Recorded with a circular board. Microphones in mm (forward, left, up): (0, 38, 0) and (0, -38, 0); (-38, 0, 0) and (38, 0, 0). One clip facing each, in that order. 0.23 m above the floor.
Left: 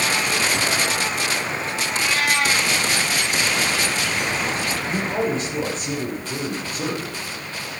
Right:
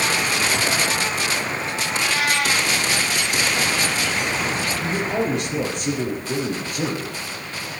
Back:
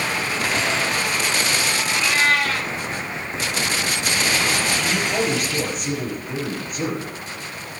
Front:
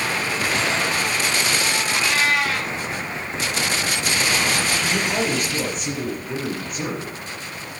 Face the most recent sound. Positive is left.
turn(degrees=-90)